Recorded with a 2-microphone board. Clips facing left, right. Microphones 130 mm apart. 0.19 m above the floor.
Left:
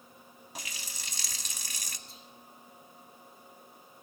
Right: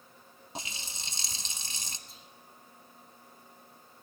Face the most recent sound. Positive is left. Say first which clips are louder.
# left 2 dB
turn(degrees=0)  # may be behind; listen again after turning